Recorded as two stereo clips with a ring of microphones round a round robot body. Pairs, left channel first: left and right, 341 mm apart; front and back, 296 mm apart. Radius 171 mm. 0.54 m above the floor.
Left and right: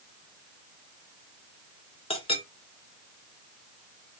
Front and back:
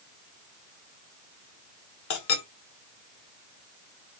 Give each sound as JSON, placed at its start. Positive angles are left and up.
{"t": 2.1, "sound": "a clink", "azimuth_deg": 15, "distance_m": 1.3}